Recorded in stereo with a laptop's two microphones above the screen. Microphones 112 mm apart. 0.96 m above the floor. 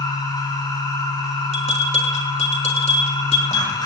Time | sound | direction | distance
0.0 | a machine running | 40° left (ahead or behind) | 9.5 m
1.5 | a bell | 80° left | 3 m